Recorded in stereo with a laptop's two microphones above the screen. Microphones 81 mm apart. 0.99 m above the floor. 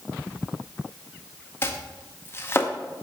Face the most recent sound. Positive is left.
turn(degrees=30)  # may be behind; listen again after turning